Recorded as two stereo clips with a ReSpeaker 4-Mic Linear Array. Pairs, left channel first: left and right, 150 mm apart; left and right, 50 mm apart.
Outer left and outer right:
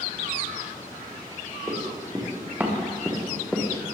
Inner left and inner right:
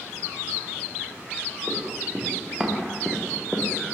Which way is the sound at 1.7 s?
20° right (ahead or behind).